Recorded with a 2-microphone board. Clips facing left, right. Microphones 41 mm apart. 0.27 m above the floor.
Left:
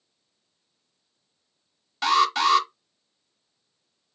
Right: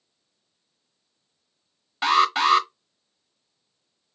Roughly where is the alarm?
Centre.